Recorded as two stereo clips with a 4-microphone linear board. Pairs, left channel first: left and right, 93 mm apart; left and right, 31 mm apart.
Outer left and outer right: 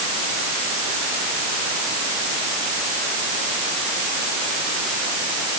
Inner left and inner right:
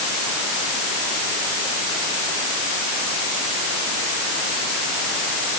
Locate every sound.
Only background noise.